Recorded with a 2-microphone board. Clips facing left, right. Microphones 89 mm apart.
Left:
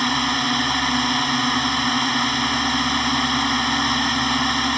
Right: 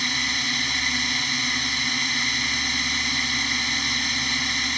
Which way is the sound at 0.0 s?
50° left (ahead or behind).